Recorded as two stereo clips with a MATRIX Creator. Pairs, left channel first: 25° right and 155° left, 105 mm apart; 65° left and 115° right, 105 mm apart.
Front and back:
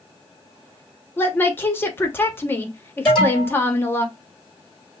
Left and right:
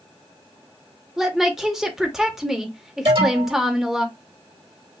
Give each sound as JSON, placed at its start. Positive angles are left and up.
{"t": 1.2, "sound": "a woman speaking", "azimuth_deg": -35, "distance_m": 0.9}
{"t": 3.0, "sound": "an alarm", "azimuth_deg": -105, "distance_m": 3.5}